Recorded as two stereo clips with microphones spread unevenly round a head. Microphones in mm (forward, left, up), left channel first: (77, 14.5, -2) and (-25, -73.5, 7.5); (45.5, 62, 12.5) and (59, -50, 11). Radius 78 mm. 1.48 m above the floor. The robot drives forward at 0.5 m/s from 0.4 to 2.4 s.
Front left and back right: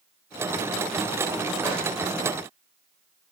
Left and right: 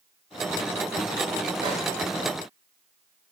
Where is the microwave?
80° right, 0.5 m; by 1.8 s 90° right, 0.5 m.